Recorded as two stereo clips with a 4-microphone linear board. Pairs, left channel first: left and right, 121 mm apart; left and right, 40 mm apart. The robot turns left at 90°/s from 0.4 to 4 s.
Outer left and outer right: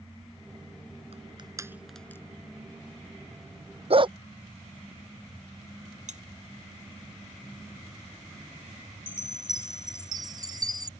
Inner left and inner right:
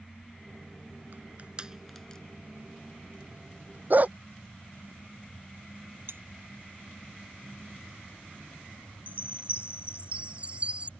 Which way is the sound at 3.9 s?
50° right (ahead or behind).